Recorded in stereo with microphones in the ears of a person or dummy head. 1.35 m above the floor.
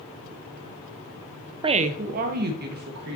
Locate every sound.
1.6 s a woman speaking: 30° right (ahead or behind), 0.5 m; by 3.2 s 60° right (ahead or behind), 1.9 m